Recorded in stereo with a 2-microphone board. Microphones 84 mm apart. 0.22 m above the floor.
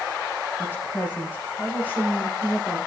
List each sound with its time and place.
0.6 s a woman speaking: 20° left (ahead or behind), 9 m; by 2.8 s 25° left (ahead or behind), 7.5 m